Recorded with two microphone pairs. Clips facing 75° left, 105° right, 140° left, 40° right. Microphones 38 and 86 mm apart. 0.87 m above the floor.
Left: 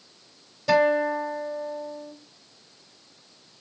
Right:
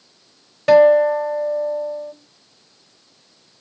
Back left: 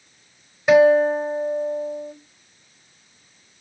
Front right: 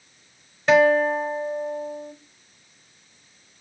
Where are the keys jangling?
I don't hear keys jangling.